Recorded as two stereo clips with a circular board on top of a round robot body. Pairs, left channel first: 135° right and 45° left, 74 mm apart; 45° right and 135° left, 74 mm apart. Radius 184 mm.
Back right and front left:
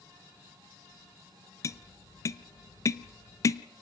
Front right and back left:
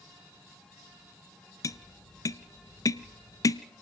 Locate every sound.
1.6 s tapping: 90° right, 0.6 m